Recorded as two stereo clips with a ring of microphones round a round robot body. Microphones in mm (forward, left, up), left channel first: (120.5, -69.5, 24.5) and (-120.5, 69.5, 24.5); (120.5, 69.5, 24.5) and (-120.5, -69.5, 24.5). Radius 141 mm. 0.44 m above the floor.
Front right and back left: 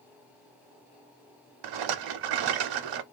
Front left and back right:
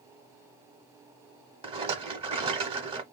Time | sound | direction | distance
1.6 | a rattle | 135° left | 0.6 m